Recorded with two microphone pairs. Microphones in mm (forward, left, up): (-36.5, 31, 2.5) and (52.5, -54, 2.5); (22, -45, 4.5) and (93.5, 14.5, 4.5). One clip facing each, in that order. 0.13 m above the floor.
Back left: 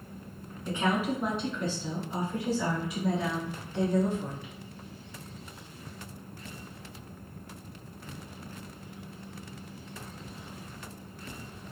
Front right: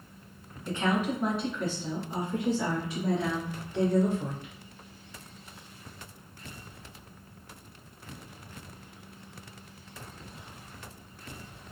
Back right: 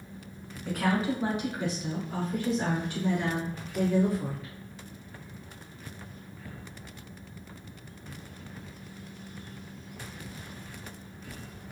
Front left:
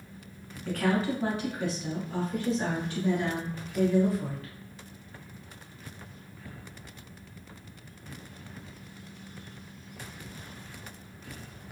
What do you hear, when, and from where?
0.7 s a woman speaking: 170° left, 1.2 m; by 4.5 s 70° right, 2 m